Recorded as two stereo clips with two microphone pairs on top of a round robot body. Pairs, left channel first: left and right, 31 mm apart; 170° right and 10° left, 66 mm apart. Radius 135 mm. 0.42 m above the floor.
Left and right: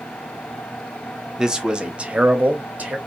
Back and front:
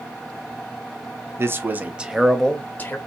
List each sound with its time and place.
1.4 s a man speaking: straight ahead, 1.1 m; by 3.0 s 125° right, 1.0 m